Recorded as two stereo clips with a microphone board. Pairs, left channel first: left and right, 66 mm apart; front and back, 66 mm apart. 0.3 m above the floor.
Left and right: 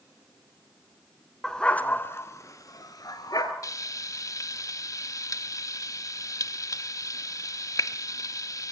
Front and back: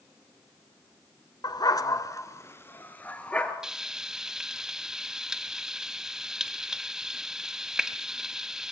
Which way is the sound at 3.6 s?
100° left.